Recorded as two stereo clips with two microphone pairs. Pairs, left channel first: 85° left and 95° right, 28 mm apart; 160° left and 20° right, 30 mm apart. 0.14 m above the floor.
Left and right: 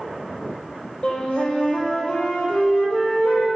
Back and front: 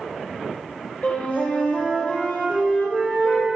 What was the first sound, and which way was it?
A flute, 135° left.